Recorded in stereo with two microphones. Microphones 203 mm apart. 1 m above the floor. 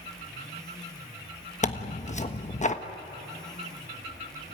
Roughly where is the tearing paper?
Left.